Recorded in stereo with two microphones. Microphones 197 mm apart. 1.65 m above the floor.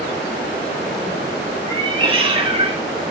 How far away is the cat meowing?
About 1.2 m.